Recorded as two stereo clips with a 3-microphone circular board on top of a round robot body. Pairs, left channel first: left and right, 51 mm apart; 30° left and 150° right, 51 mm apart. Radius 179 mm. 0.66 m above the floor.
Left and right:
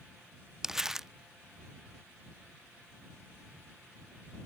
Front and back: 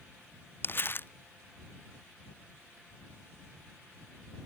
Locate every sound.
0.6 s crumpling: 10° right